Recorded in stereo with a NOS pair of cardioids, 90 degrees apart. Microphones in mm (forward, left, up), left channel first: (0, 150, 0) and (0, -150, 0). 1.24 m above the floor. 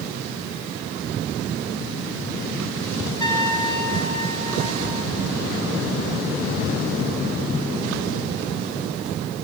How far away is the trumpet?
About 8 m.